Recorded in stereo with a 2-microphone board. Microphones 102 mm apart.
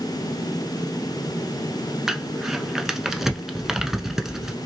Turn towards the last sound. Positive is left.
turn(degrees=-5)  # may be behind; listen again after turning